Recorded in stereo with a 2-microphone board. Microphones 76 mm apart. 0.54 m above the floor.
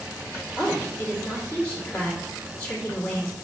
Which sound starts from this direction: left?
A woman speaking, at 0.6 s.